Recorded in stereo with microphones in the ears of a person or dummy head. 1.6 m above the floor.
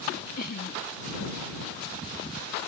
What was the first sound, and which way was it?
Laughter, 55° left (ahead or behind).